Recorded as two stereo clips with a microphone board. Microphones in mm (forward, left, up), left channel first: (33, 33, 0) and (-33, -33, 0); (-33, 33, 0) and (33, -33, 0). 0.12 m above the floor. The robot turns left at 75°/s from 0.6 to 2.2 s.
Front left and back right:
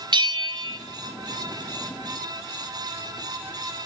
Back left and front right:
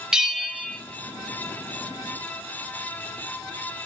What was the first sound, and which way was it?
A bell, 125° right.